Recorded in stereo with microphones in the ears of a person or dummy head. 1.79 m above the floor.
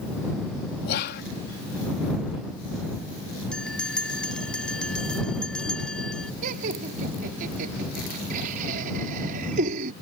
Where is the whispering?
55° left (ahead or behind).